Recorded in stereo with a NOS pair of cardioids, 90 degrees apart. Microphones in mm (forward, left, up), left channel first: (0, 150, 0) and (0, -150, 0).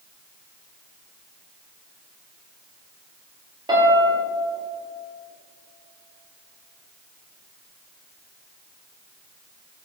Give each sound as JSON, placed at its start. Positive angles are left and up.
{"t": 3.7, "sound": "a piano", "azimuth_deg": -15, "distance_m": 2.5}